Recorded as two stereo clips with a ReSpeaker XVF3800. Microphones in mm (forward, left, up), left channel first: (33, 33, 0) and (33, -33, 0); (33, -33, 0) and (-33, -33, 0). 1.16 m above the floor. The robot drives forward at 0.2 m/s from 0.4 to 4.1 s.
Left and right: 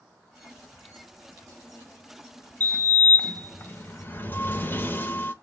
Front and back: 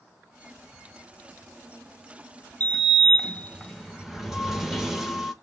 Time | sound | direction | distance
2.6 | a sliding door | 50° left | 0.7 m